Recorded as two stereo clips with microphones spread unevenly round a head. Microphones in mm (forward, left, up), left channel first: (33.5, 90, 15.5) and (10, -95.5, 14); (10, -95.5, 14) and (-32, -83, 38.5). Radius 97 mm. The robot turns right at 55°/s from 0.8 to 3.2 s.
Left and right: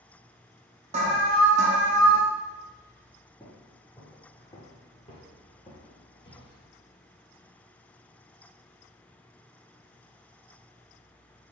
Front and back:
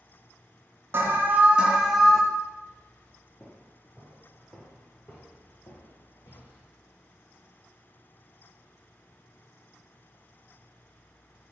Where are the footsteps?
155° left, 1.1 m; by 6.7 s 25° left, 1.5 m.